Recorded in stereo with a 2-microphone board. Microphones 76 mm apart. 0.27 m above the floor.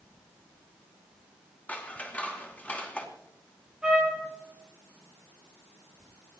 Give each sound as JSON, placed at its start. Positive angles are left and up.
{"t": 1.7, "sound": "scissors", "side_deg": 20, "distance_m": 2.5}
{"t": 3.8, "sound": "a trumpet", "side_deg": -10, "distance_m": 6.5}